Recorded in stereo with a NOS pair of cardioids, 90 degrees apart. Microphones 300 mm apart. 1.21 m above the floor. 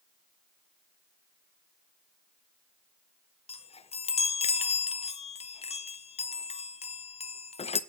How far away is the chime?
About 0.7 m.